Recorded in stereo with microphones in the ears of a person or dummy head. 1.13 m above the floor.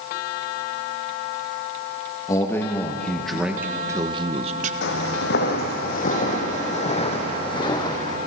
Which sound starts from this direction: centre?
A man speaking, at 2.3 s.